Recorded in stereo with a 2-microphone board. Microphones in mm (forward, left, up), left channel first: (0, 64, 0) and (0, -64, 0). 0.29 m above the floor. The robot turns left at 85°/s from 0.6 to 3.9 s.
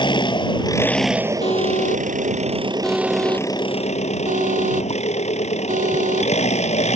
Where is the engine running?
40° left; by 7.0 s 115° left.